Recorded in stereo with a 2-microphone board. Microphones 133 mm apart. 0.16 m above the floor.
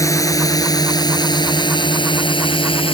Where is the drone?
25° left (ahead or behind); by 3.0 s 40° left (ahead or behind).